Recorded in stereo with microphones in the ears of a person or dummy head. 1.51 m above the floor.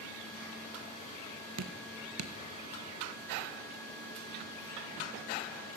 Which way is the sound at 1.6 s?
85° right.